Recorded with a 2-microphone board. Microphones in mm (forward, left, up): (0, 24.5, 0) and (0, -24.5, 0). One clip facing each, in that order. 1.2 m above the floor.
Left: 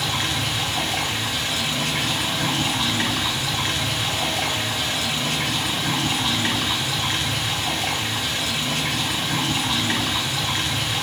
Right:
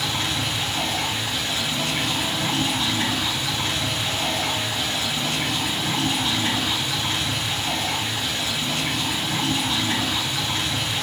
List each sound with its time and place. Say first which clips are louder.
0.0 s running water: left 1 dB; 80° left, 1.1 m